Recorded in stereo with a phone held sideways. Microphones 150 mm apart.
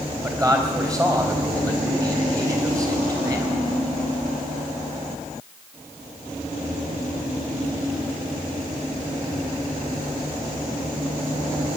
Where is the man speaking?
20° right (ahead or behind), 3.5 m.